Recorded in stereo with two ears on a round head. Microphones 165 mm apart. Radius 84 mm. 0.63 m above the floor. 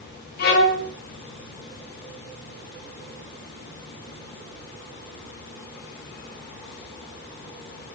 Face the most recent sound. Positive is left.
turn(degrees=60)  # may be behind; listen again after turning